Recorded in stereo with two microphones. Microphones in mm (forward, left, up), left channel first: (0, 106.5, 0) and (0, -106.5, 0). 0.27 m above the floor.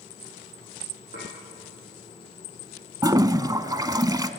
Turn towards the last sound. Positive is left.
turn(degrees=-20)  # may be behind; listen again after turning